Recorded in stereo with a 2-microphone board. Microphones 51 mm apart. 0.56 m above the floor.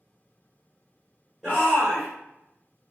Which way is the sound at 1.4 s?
5° right (ahead or behind).